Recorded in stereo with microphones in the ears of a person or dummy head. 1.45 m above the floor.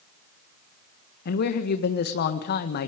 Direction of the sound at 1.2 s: 55° left (ahead or behind).